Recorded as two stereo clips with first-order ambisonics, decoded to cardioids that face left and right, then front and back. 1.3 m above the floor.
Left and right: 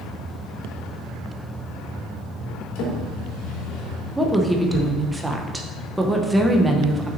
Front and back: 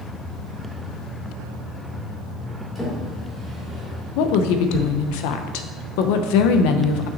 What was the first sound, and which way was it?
A drawer, 85° left.